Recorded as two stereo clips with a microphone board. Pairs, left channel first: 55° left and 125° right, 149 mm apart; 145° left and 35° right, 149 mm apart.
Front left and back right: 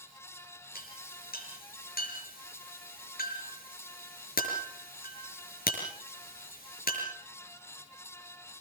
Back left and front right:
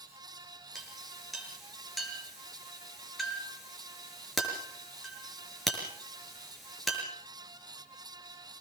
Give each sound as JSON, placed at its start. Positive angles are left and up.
{"t": 0.8, "sound": "a clink", "azimuth_deg": 55, "distance_m": 5.5}